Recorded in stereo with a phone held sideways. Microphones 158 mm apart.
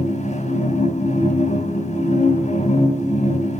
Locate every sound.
0.0 s a machine running: 45° left (ahead or behind), 2.5 m